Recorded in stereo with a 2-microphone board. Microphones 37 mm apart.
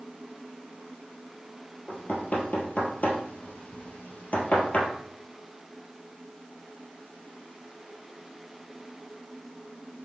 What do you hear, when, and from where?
1.9 s knocking: 45° left (ahead or behind), 2 m